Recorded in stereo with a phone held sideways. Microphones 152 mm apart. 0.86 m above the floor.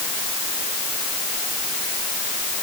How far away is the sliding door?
I don't hear a sliding door.